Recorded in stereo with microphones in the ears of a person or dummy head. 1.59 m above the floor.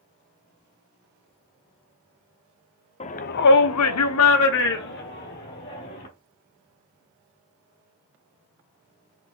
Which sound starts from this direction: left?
A shout, at 3.0 s.